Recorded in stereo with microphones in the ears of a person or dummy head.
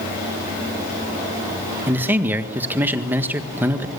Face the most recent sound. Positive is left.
turn(degrees=-15)  # may be behind; listen again after turning